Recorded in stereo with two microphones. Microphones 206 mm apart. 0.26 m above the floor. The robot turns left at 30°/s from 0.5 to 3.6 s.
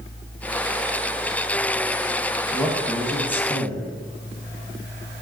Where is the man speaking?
170° right, 1.2 m; by 3.9 s 160° left, 1.2 m.